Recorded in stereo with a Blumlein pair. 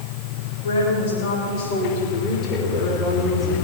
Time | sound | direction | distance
0.6 | a woman speaking | 60° left | 5.5 m